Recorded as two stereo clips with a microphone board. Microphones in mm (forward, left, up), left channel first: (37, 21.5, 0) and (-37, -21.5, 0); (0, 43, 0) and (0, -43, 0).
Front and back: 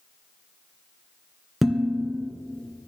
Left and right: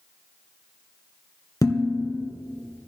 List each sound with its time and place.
1.6 s dishes clattering: 125° left, 1.6 m